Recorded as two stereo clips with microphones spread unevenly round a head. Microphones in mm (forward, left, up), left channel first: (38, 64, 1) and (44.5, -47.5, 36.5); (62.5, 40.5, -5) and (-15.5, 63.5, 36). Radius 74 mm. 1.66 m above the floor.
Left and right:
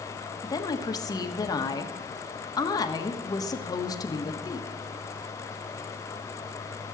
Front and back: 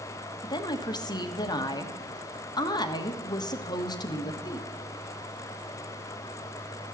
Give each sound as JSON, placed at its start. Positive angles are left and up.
{"t": 0.4, "sound": "a woman speaking", "azimuth_deg": 30, "distance_m": 1.6}